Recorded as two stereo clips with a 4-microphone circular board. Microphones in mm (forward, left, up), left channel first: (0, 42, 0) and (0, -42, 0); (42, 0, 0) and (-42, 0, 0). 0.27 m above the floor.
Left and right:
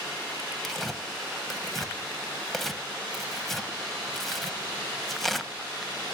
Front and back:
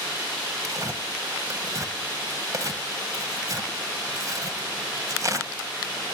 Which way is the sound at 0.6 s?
Straight behind.